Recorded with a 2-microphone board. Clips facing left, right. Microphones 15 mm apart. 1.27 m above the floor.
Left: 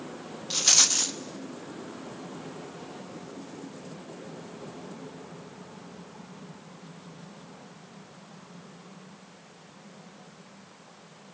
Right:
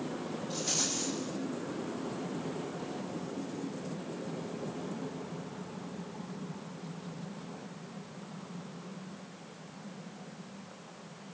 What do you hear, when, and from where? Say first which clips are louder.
0.5 s a rattle: left 12 dB; 55° left (ahead or behind), 0.9 m